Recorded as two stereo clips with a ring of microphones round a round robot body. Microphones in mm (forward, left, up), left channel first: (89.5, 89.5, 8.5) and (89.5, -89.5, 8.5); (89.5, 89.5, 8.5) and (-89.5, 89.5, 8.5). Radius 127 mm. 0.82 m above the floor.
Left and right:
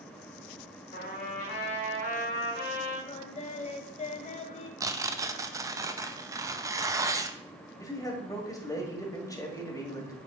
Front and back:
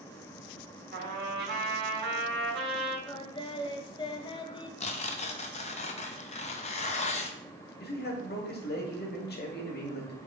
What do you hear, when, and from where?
0.9 s a trumpet: 155° left, 3 m
3.1 s singing: 55° left, 0.8 m
4.8 s tearing paper: 30° right, 0.6 m
7.8 s a man speaking: 20° left, 1.8 m